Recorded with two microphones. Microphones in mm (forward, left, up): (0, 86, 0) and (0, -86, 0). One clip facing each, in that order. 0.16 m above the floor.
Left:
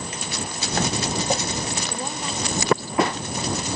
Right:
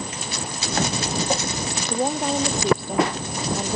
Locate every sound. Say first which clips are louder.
1.9 s a woman speaking: right 7 dB; 60° right (ahead or behind)